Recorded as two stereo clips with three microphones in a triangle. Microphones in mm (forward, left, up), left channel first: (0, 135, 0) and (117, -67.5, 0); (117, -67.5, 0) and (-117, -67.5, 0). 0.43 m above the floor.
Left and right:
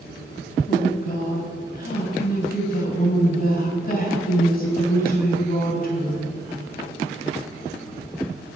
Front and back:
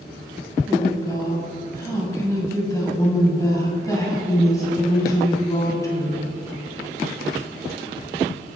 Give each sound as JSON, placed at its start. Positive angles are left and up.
{"t": 0.7, "sound": "a woman speaking", "azimuth_deg": 75, "distance_m": 3.0}